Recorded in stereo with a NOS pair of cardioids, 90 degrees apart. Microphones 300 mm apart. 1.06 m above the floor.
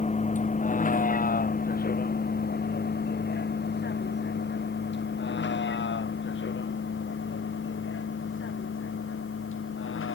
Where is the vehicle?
25° left; by 10.1 s 40° left.